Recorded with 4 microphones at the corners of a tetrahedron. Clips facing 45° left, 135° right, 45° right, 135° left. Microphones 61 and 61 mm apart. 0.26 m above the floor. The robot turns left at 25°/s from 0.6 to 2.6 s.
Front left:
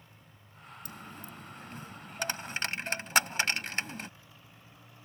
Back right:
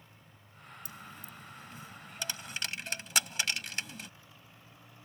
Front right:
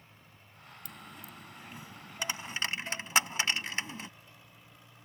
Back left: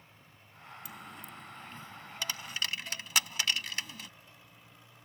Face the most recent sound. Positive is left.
turn(degrees=5)